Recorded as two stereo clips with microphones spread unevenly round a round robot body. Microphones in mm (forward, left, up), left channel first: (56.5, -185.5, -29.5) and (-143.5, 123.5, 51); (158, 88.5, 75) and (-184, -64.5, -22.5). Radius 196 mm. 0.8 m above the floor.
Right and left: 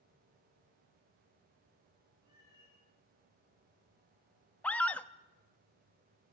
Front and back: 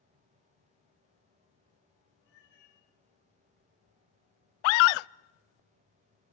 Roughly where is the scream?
Ahead.